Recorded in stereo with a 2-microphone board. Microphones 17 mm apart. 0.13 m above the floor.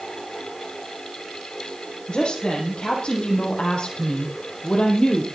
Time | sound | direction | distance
2.1 | a woman speaking | 70° left (ahead or behind) | 6.5 m